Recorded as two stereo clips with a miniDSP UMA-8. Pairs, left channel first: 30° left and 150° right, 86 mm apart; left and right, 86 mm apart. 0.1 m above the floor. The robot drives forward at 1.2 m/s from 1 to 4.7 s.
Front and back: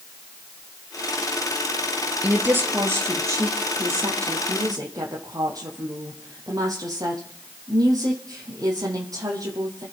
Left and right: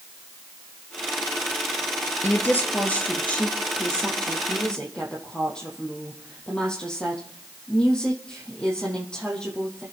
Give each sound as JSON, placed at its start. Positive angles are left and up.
{"t": 2.2, "sound": "a woman speaking", "azimuth_deg": 145, "distance_m": 2.0}